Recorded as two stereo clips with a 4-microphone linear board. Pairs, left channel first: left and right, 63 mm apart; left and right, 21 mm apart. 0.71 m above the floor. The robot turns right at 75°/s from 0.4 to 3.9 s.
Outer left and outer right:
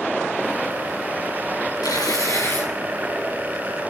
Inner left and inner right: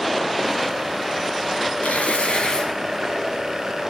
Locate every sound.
1.8 s tearing paper: 85° left, 6.5 m; by 2.7 s 150° left, 6.5 m